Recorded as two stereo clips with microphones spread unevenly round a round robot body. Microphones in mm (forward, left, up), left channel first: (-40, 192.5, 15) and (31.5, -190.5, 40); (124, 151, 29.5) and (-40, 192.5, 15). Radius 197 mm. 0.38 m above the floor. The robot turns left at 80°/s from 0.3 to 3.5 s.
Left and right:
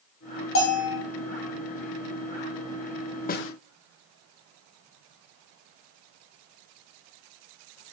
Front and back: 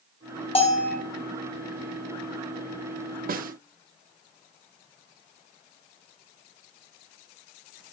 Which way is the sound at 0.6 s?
45° left.